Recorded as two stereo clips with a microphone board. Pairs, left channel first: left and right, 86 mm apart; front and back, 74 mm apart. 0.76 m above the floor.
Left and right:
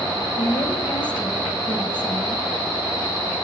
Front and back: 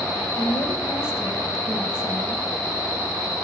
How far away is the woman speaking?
About 5 m.